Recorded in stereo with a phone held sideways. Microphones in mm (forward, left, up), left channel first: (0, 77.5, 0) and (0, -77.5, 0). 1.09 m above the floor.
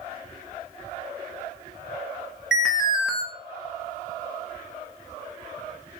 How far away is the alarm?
About 0.7 m.